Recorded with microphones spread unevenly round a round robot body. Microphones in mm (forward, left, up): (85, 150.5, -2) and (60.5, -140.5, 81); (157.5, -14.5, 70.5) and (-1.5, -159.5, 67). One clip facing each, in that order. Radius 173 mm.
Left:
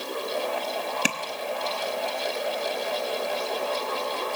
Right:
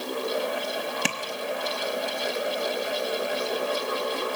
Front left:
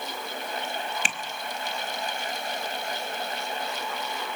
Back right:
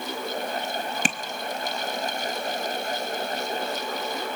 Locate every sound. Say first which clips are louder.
1.1 s tapping: left 1 dB, back right 9 dB; 165° left, 0.8 m